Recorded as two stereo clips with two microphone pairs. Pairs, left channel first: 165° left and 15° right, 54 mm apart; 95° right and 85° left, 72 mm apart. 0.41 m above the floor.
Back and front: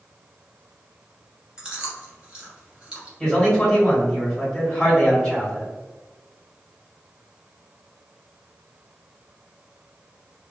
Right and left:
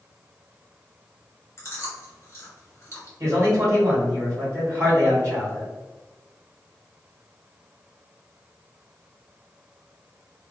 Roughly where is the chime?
I don't hear a chime.